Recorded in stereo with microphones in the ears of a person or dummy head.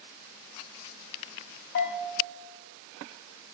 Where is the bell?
55° left (ahead or behind), 0.5 m.